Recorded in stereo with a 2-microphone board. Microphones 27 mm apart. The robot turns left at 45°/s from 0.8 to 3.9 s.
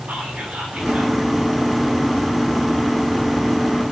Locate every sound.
0.1 s whispering: 85° right, 4 m; by 1.2 s 80° right, 4 m